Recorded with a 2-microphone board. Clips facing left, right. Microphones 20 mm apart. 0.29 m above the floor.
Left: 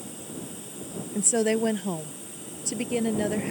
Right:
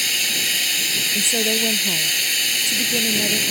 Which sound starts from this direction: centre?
A woman speaking, at 1.1 s.